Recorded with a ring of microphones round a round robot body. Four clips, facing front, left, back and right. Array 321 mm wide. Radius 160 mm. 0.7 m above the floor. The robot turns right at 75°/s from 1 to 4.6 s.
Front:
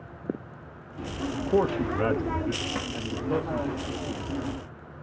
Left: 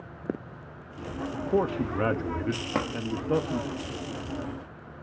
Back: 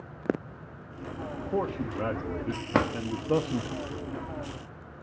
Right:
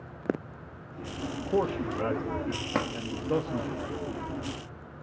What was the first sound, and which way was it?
A man speaking, 5° left.